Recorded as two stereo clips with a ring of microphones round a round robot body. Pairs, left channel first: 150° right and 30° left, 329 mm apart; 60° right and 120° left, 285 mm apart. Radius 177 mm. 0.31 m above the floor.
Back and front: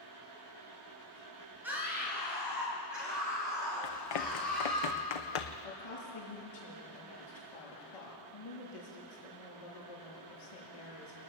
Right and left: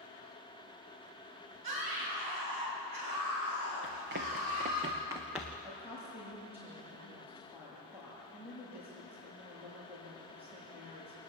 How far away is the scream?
About 6 m.